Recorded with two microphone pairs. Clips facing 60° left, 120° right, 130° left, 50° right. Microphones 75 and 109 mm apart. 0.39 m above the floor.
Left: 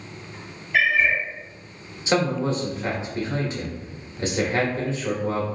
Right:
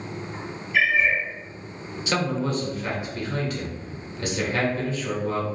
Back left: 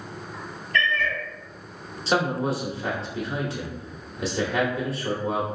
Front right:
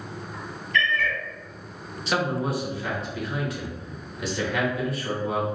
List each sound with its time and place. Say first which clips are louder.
0.7 s a cat meowing: left 1 dB, even; 85° left, 0.7 m
2.1 s a man speaking: left 3 dB, back left 2 dB; 100° left, 0.9 m